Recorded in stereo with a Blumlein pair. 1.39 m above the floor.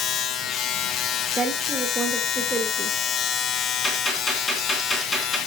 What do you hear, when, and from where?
0.0 s a machine running: 30° left, 0.7 m
1.4 s a woman speaking: 15° right, 2 m
3.8 s a gunshot: 15° left, 3.5 m